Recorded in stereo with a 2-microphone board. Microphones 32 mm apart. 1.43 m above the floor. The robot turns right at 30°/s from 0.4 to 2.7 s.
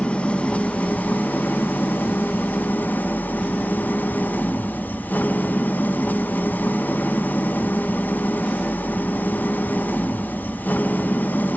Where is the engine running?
40° left, 1.1 m; by 11.6 s 110° left, 1.1 m.